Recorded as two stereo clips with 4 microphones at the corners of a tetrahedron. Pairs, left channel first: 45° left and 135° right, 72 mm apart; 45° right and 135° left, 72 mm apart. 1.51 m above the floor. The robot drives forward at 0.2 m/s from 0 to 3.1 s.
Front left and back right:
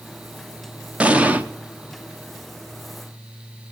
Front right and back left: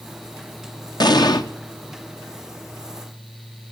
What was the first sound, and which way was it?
An explosion, 65° right.